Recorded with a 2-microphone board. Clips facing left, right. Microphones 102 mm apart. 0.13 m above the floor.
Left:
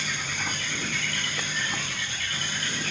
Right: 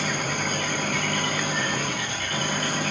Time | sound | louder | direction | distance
0.0 | an engine running | right 6 dB | 50° right (ahead or behind) | ?